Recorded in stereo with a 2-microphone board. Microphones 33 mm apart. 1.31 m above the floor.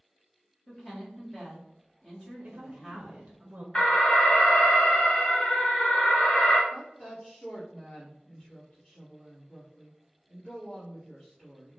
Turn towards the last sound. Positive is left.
turn(degrees=25)  # may be behind; listen again after turning